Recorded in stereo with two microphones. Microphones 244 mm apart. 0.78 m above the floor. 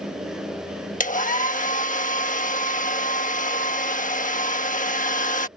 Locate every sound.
1.0 s a hair dryer: 30° left (ahead or behind)